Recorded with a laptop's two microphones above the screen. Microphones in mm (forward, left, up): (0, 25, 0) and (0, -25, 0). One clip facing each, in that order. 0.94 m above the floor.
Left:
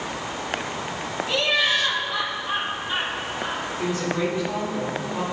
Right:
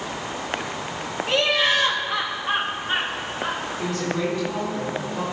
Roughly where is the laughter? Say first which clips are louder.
Right 2 dB; right.